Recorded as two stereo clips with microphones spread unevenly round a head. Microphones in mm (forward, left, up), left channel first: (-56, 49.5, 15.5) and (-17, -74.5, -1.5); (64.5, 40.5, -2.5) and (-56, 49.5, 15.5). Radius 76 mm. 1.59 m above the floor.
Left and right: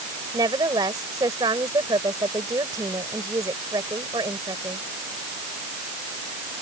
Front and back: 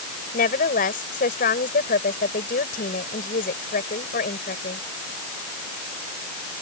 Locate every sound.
0.3 s a woman speaking: 5° right